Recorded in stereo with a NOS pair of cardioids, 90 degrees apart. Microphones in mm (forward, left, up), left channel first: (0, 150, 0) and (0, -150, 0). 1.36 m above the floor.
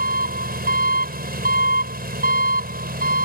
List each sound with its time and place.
0.0 s an engine running: 30° right